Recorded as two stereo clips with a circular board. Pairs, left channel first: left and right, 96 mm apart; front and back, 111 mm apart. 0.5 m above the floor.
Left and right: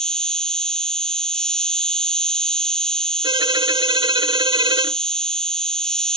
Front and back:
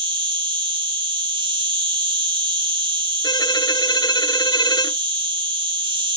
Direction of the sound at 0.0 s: 170° left.